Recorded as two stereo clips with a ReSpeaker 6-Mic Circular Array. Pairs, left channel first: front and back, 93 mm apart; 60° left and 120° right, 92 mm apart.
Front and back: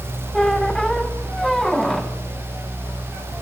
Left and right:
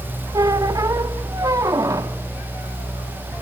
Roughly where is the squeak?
Right.